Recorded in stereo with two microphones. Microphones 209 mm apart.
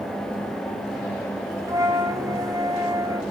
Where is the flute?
15° right (ahead or behind), 0.9 m.